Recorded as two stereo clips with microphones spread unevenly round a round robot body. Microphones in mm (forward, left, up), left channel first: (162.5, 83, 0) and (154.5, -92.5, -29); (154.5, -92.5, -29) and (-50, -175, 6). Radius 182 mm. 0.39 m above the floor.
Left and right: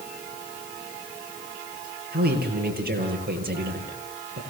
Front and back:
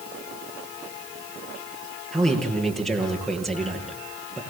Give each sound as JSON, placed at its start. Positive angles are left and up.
{"t": 2.1, "sound": "a man speaking", "azimuth_deg": -65, "distance_m": 8.0}